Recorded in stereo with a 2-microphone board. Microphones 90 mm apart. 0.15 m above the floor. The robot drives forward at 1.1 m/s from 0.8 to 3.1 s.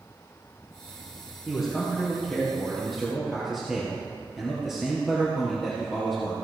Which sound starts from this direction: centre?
A man speaking, at 1.5 s.